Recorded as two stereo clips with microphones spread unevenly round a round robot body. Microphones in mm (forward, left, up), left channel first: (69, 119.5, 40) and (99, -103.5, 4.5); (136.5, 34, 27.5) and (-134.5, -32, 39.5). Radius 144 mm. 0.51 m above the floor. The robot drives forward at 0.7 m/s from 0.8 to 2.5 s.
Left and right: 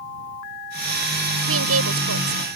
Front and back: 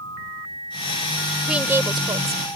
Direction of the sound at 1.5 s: 80° right.